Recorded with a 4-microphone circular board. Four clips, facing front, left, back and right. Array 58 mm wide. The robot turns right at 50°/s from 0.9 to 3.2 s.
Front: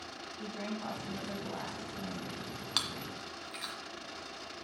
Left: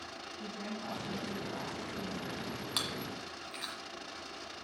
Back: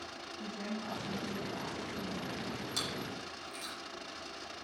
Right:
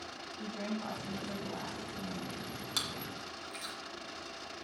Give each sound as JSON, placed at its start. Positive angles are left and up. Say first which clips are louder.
{"t": 0.4, "sound": "a woman speaking", "louder": "right 4 dB, front 1 dB", "azimuth_deg": -40, "distance_m": 1.6}
{"t": 2.8, "sound": "chewing", "louder": "even, front 1 dB", "azimuth_deg": 25, "distance_m": 1.3}